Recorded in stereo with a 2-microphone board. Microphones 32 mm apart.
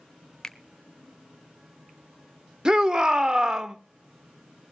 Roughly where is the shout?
Right.